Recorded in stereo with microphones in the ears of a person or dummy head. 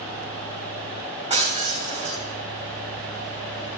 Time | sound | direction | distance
1.3 | breaking glass | 30° right (ahead or behind) | 3.5 m